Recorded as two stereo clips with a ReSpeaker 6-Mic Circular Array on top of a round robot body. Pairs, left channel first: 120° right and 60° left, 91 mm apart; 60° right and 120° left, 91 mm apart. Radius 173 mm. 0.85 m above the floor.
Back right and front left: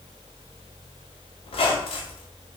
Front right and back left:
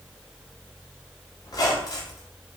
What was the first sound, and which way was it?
A squeak, 110° right.